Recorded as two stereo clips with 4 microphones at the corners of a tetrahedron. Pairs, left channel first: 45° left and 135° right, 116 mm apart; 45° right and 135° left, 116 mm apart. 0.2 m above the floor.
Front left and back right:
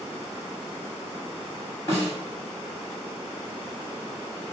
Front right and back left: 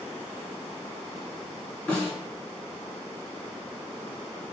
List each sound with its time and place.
1.9 s a snare drum: 20° left, 1.7 m